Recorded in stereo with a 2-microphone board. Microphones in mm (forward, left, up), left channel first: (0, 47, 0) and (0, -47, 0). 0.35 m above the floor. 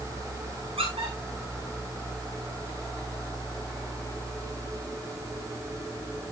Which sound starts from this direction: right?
A squeak, at 0.8 s.